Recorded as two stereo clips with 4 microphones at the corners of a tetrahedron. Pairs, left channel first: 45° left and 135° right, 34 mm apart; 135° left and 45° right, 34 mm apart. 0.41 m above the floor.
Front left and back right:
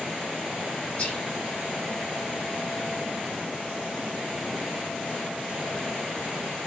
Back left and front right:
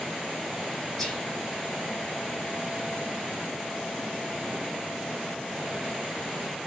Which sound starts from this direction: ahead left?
Whispering, at 1.0 s.